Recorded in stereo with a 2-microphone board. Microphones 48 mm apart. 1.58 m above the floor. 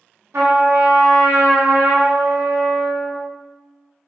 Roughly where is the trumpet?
Right.